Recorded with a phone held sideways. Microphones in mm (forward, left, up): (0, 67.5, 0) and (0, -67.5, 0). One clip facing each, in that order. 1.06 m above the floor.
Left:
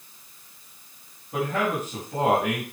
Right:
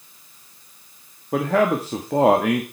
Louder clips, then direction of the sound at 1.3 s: Right 7 dB; 75° right (ahead or behind).